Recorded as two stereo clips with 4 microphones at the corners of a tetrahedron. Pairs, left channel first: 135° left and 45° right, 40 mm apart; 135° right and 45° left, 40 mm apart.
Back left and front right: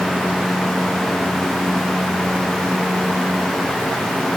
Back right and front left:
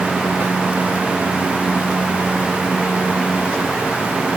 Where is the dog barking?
No dog barking in this recording.